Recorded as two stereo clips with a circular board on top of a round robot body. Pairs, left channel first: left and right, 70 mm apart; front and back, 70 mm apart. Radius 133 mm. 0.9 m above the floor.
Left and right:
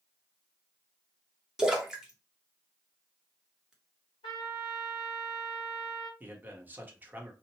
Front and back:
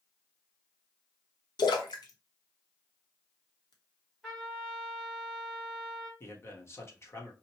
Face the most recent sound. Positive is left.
turn(degrees=-35)